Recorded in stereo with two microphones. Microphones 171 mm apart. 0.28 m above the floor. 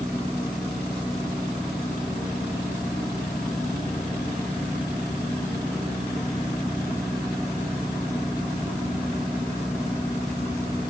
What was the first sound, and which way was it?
Only background noise.